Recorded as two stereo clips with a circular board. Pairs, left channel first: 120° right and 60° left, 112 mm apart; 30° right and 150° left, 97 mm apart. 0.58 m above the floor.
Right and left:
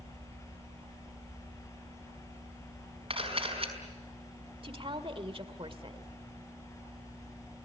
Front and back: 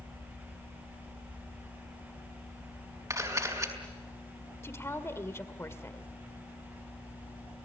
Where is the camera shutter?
95° left, 5 m.